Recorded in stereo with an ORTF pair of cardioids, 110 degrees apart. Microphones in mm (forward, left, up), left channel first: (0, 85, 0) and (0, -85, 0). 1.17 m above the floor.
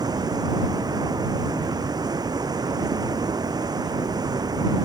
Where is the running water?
20° right.